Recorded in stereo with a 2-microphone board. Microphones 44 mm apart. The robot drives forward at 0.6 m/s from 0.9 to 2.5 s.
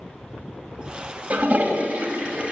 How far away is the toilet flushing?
About 1.6 m.